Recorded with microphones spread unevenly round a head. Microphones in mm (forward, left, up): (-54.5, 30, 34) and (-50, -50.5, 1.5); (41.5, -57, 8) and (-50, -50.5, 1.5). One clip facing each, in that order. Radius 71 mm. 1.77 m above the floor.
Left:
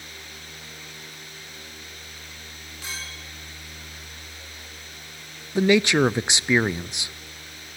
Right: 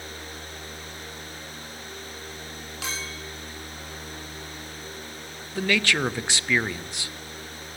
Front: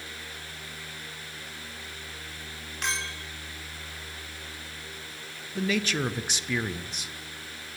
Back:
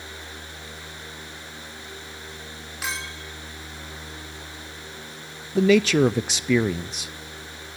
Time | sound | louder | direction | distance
2.8 | a clink | right 3 dB, even | 95° right | 4.5 m
5.5 | a man speaking | left 7 dB, back 11 dB | 150° left | 0.6 m